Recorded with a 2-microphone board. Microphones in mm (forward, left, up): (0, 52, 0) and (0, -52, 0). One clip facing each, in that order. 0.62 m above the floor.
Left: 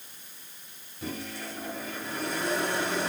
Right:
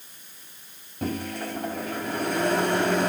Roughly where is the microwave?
Right.